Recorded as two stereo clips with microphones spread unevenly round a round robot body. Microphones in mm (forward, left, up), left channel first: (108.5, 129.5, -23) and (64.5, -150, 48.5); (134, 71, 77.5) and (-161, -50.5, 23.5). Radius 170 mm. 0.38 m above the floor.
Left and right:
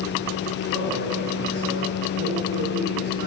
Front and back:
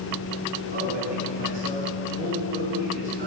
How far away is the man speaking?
About 3.5 m.